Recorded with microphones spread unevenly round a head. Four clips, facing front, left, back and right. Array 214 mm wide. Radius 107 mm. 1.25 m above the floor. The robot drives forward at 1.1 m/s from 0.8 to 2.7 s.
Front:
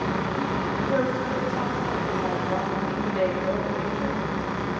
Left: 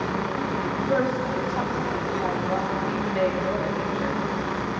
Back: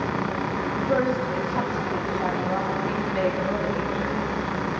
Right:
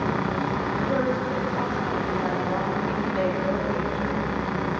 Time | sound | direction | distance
0.8 | a woman speaking | 175° left | 2.5 m